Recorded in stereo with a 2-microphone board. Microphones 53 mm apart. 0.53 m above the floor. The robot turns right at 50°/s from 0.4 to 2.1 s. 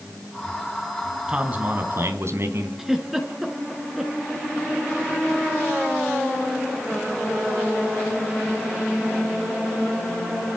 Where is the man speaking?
165° right, 3.5 m; by 2.7 s 120° right, 3.5 m.